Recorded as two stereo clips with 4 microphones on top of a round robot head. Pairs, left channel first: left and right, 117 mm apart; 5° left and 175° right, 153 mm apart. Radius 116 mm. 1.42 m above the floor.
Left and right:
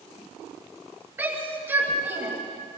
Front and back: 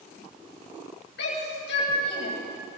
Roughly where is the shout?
Ahead.